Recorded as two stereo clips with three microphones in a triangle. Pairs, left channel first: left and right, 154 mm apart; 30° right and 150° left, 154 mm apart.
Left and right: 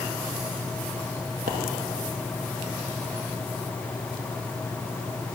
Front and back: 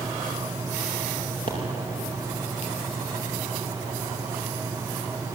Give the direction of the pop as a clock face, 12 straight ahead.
2 o'clock.